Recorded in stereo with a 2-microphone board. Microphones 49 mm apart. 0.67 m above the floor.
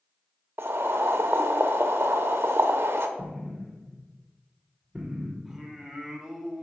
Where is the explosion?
20° right (ahead or behind), 1.1 m.